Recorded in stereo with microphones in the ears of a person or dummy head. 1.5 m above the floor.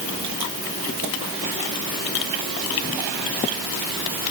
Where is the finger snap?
No finger snap in this recording.